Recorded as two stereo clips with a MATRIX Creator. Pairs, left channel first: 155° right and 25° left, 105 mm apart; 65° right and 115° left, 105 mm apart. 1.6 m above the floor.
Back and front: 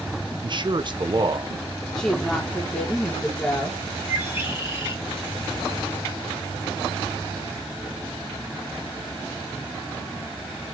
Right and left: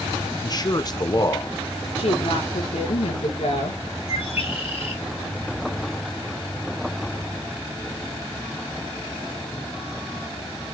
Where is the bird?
50° right, 7 m.